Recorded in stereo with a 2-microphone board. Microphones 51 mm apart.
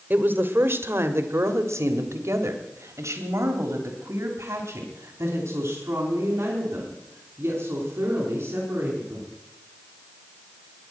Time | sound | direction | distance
0.1 | a woman speaking | 40° right (ahead or behind) | 1.6 m